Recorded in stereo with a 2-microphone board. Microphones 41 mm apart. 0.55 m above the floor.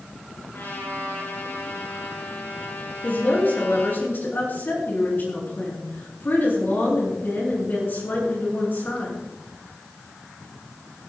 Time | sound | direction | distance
0.5 | a trumpet | 60° left (ahead or behind) | 6.5 m
3.0 | a woman speaking | 50° left (ahead or behind) | 6 m